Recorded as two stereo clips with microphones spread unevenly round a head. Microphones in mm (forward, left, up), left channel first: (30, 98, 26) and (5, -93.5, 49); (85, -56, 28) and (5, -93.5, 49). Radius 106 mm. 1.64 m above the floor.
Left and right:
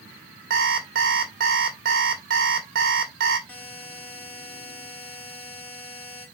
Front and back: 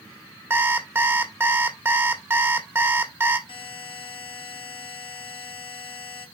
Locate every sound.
0.5 s an alarm clock: 115° right, 1.6 m
3.5 s a buzzer: 5° right, 3 m